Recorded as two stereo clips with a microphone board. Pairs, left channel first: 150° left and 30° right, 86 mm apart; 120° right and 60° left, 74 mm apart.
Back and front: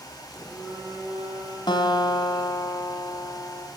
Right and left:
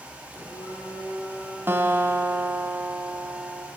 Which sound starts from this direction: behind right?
A phone buzzing, at 0.3 s.